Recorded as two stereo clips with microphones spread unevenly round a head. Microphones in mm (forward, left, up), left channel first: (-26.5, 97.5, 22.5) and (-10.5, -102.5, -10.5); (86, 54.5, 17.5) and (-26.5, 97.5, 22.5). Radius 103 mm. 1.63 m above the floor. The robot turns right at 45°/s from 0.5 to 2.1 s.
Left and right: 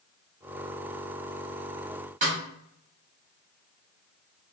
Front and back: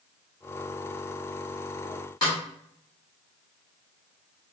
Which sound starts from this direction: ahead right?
A snare drum, at 2.2 s.